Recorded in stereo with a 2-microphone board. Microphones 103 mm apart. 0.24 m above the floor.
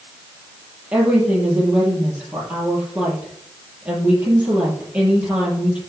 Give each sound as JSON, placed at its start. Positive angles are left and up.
{"t": 0.9, "sound": "a woman speaking", "side_deg": -15, "distance_m": 5.5}